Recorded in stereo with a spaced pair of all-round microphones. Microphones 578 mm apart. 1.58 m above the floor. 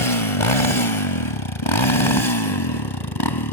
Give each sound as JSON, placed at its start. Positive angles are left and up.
{"t": 0.0, "sound": "a motorcycle", "side_deg": 65}